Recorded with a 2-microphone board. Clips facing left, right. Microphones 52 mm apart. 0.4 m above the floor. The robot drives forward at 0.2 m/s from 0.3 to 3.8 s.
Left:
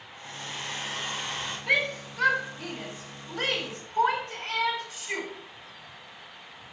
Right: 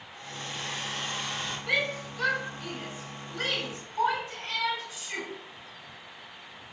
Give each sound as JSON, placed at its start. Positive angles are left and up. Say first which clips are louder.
{"t": 0.1, "sound": "a hair dryer", "louder": "even", "side_deg": 30, "distance_m": 2.5}
{"t": 1.7, "sound": "a shout", "louder": "left 3 dB", "side_deg": 65, "distance_m": 3.0}